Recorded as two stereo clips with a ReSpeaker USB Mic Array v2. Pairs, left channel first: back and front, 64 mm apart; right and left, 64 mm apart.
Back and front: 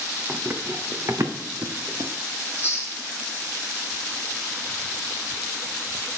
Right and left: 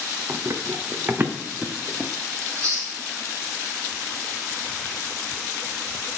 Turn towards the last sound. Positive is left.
turn(degrees=125)